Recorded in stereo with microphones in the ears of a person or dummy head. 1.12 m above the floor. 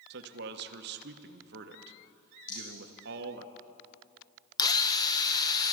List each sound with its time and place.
0.1 s a man speaking: 50° right (ahead or behind), 0.8 m
2.5 s a rattle: 25° left (ahead or behind), 7.5 m
4.6 s a drill: 20° left (ahead or behind), 0.8 m